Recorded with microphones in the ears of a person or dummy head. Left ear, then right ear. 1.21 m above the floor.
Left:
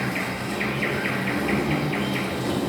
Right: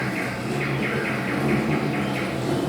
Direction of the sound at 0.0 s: 35° left (ahead or behind).